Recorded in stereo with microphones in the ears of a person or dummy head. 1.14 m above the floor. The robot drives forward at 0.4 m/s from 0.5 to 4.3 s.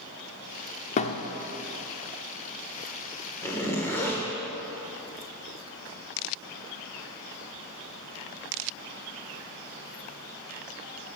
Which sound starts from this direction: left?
A thud, at 1.0 s.